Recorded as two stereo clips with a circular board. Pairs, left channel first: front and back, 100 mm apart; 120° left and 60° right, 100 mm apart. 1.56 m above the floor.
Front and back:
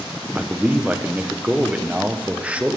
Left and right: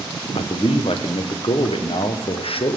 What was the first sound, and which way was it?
A man speaking, 100° left.